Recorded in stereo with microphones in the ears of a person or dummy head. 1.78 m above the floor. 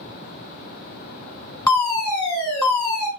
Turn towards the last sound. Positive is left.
turn(degrees=20)  # may be behind; listen again after turning